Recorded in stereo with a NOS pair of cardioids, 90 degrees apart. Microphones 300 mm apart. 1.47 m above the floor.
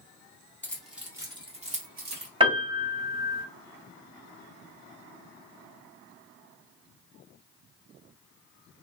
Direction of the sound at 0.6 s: 5° left.